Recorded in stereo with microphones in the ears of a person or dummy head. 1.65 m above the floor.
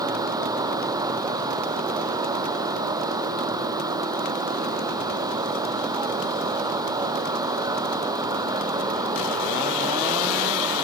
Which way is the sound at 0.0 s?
20° right (ahead or behind).